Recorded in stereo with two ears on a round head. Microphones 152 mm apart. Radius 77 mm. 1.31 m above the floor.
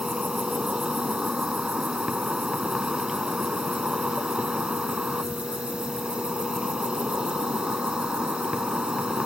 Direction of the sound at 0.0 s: 5° right (ahead or behind).